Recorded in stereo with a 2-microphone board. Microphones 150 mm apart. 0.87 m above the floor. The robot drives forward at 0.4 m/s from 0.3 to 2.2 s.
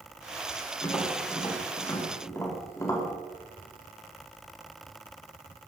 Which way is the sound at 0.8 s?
20° left (ahead or behind).